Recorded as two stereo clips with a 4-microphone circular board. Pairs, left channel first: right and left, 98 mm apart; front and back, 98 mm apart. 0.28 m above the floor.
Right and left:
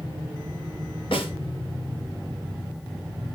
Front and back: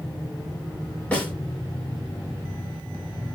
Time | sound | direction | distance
1.1 | a snare drum | 75° right | 4 m